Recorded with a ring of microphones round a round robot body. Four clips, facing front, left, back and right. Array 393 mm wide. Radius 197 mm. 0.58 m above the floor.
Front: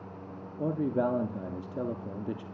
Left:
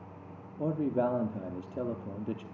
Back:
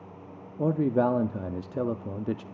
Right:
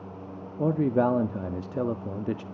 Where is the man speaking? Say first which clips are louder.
Right 6 dB, back 5 dB; 125° right, 0.7 m.